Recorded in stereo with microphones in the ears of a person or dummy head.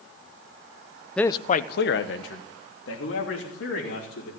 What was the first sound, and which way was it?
A man speaking, 5° left (ahead or behind).